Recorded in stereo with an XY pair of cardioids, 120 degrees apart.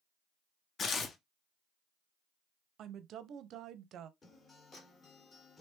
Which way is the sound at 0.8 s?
45° left.